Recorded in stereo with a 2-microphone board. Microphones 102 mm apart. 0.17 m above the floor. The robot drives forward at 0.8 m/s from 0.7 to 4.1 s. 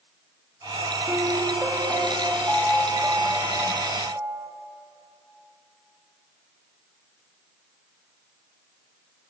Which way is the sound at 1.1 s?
10° right (ahead or behind).